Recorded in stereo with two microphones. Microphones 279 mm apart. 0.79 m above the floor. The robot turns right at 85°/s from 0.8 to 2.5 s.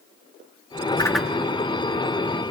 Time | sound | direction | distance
1.0 | a whoosh | 15° left (ahead or behind) | 0.8 m